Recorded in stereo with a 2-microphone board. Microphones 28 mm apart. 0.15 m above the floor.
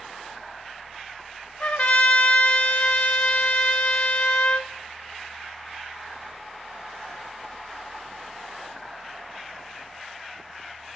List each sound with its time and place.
1.6 s a trumpet: 60° left (ahead or behind), 0.5 m